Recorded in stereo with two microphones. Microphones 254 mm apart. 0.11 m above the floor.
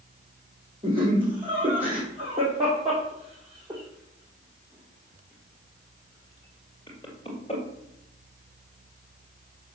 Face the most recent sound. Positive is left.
turn(degrees=20)  # may be behind; listen again after turning